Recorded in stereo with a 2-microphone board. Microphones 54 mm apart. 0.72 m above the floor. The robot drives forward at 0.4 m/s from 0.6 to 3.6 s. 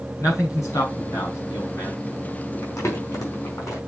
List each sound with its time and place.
0.2 s a man speaking: 85° left, 5.5 m
2.6 s crumpling: 85° left, 4.5 m